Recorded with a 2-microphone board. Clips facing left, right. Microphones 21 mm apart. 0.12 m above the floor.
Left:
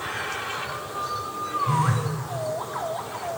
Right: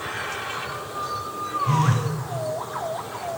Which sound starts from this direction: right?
A phone buzzing, at 1.7 s.